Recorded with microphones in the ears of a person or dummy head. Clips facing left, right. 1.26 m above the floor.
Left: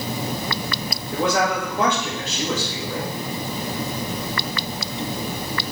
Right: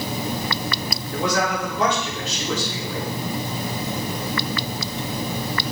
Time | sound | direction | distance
1.1 | a man speaking | 50° left (ahead or behind) | 2.5 m